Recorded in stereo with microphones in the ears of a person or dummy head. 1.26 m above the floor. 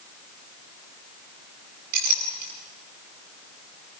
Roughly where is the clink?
Right.